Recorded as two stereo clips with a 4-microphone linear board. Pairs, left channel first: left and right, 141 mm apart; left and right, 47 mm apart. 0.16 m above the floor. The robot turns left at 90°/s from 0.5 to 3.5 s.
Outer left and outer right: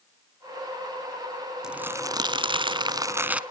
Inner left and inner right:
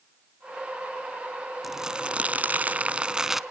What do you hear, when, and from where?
1.6 s crumpling: 5° right, 0.7 m; by 3.4 s 165° right, 0.7 m